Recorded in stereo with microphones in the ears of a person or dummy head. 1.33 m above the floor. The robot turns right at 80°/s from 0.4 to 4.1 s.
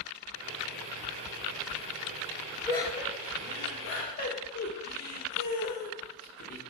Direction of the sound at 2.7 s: 15° left (ahead or behind).